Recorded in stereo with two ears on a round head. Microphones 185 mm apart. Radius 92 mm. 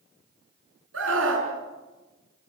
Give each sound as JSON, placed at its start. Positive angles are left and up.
{"t": 0.9, "sound": "a scream", "side_deg": -70, "distance_m": 6.0}